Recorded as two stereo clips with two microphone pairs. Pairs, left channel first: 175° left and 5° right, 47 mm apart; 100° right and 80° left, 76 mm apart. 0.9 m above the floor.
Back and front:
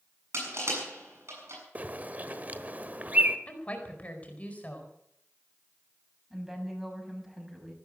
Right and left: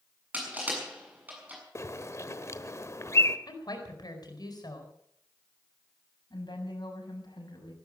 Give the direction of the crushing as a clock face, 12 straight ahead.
12 o'clock.